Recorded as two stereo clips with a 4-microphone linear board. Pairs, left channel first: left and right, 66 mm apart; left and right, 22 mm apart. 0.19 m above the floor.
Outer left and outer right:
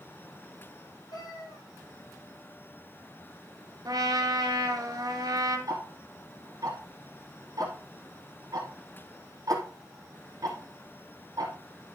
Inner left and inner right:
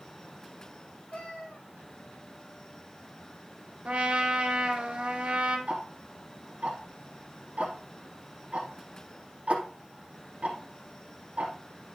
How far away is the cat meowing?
About 3 m.